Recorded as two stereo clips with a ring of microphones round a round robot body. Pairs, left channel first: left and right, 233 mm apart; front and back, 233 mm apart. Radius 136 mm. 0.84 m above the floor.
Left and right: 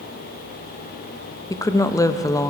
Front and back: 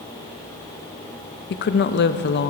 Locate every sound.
1.5 s a woman speaking: 15° left, 0.6 m